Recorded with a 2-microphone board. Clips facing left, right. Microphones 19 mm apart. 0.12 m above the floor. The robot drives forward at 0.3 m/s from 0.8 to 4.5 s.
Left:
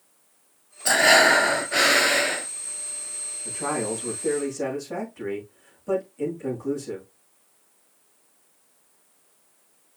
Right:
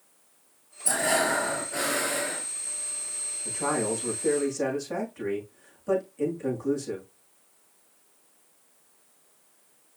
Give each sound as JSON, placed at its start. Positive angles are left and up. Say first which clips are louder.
{"t": 0.8, "sound": "breathing", "louder": "left 9 dB", "side_deg": 55, "distance_m": 0.6}
{"t": 3.5, "sound": "a man speaking", "louder": "even", "side_deg": -5, "distance_m": 5.0}